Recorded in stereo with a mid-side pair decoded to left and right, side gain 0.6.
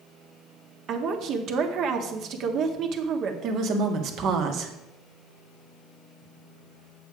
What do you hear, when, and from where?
0.9 s a woman speaking: 55° right, 1.6 m
3.4 s a woman speaking: 60° right, 1.7 m